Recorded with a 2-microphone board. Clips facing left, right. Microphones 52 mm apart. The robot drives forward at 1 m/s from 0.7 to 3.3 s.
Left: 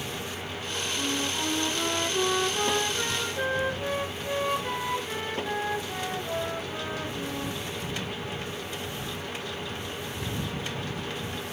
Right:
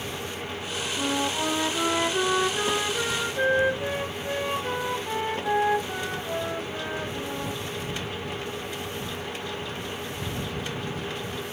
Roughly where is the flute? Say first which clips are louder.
Right 5 dB; right.